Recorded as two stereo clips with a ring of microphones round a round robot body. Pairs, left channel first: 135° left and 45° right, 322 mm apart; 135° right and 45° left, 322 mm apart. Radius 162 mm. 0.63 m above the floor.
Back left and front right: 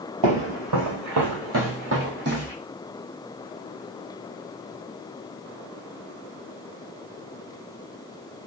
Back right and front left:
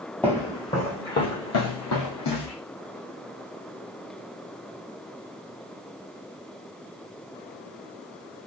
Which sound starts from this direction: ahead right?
Footsteps, at 0.2 s.